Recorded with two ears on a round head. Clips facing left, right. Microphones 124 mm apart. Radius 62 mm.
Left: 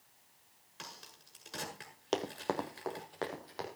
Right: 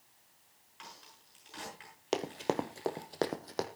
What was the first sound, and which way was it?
A crack, 50° left (ahead or behind).